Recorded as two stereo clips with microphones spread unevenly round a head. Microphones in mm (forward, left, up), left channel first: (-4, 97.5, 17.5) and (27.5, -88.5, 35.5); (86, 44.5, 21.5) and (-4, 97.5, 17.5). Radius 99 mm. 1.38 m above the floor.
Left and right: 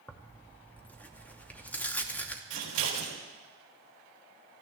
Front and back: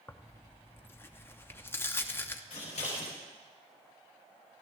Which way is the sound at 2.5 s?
90° right.